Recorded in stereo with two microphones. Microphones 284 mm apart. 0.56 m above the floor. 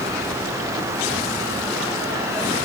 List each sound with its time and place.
Only background noise.